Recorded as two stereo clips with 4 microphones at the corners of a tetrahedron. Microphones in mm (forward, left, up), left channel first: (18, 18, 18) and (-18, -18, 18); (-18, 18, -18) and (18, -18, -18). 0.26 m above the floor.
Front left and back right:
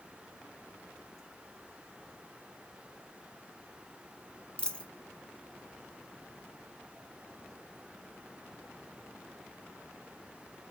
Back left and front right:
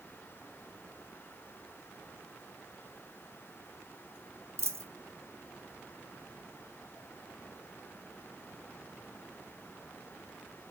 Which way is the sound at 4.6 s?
25° right.